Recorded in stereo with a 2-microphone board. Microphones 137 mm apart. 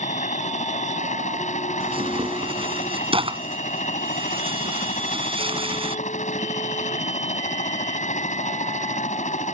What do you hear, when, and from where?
0.0 s a helicopter: 65° left (ahead or behind)
1.8 s tearing paper: 45° right (ahead or behind)